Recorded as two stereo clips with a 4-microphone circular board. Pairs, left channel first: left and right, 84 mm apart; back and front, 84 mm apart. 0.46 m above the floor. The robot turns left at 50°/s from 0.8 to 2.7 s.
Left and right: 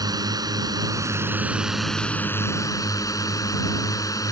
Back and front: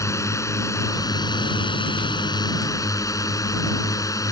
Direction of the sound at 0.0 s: 130° right.